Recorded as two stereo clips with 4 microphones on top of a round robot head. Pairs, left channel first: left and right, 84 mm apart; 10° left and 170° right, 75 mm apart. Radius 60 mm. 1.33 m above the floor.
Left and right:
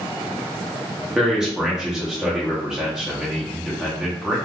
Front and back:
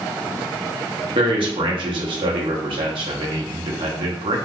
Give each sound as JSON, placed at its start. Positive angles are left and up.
{"t": 1.1, "sound": "a man speaking", "azimuth_deg": -175, "distance_m": 1.0}